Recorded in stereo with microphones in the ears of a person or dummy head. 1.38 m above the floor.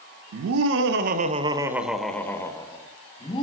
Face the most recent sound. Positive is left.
turn(degrees=25)  # may be behind; listen again after turning